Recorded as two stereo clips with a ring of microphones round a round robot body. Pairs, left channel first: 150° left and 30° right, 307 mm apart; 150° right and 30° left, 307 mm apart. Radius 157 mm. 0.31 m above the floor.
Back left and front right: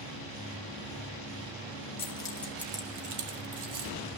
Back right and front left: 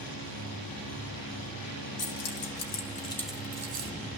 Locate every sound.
2.0 s keys jangling: 140° right, 1.9 m; by 3.9 s 25° right, 1.6 m